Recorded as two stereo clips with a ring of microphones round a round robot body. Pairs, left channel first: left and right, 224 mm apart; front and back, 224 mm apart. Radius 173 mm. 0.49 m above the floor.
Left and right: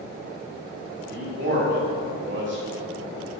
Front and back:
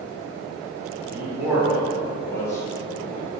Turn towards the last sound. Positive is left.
turn(degrees=-75)